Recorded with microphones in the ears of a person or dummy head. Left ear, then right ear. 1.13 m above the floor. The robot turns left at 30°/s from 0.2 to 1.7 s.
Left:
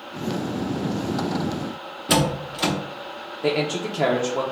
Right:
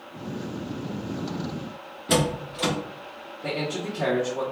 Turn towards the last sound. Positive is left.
turn(degrees=50)  # may be behind; listen again after turning